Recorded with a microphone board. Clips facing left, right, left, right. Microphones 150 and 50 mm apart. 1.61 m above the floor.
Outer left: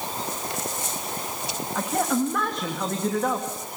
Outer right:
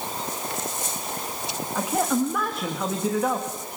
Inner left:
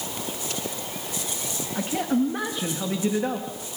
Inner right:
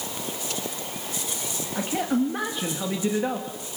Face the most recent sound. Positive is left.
turn(degrees=-5)  # may be behind; listen again after turning